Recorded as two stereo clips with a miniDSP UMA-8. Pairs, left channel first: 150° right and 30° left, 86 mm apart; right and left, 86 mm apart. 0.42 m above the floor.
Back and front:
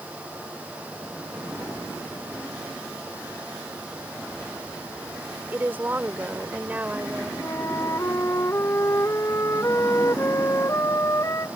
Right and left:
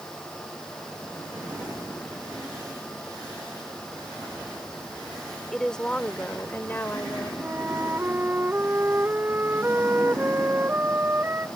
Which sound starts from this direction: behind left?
A flute, at 7.4 s.